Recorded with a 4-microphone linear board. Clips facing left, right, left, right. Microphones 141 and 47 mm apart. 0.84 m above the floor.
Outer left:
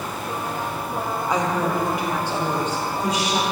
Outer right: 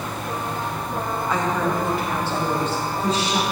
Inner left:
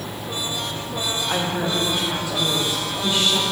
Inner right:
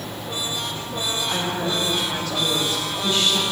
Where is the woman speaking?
15° left (ahead or behind), 1.0 m.